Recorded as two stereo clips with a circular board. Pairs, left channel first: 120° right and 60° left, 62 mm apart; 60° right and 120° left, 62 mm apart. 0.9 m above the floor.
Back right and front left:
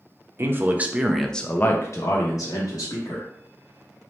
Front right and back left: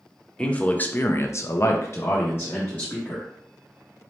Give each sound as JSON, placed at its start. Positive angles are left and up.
{"t": 0.4, "sound": "a man speaking", "azimuth_deg": 10, "distance_m": 0.7}